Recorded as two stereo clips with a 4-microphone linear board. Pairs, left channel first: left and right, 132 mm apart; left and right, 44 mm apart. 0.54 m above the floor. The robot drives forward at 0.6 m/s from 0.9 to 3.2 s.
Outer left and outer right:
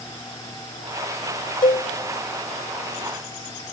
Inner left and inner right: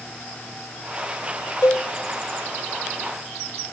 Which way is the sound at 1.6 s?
85° left.